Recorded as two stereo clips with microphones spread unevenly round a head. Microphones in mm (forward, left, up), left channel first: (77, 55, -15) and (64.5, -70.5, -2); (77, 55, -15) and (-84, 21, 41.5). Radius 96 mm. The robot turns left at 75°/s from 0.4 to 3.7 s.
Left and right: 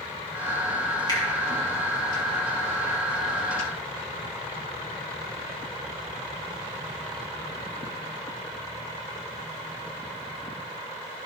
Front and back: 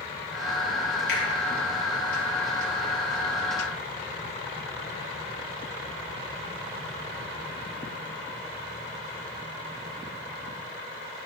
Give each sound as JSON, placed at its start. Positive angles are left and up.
{"t": 1.1, "sound": "a finger snap", "azimuth_deg": 30, "distance_m": 3.0}